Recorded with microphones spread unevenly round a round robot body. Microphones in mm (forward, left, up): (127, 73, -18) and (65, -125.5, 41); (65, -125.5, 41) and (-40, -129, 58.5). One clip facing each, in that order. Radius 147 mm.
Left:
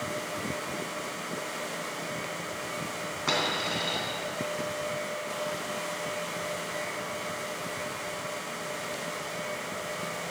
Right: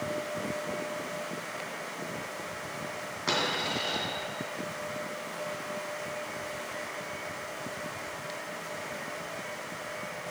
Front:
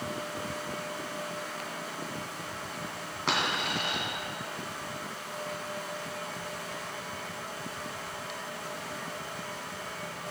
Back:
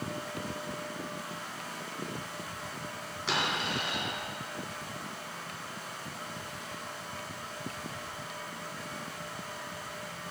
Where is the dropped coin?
30° right, 3 m.